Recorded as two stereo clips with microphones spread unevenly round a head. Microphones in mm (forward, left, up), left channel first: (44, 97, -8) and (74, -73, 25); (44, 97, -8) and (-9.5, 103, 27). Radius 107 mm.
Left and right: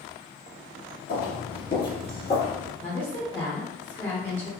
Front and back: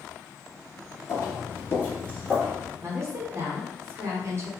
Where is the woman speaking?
175° right, 0.9 m.